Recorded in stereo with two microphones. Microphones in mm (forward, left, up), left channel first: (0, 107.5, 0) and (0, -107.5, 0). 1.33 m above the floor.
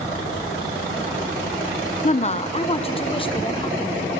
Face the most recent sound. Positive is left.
turn(degrees=20)  # may be behind; listen again after turning